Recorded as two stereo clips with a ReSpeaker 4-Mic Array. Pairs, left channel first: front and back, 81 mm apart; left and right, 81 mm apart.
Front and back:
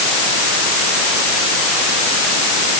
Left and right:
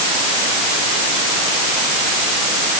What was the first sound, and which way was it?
Only background noise.